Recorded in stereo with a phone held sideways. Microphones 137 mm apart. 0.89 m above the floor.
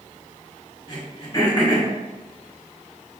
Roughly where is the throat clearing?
Left.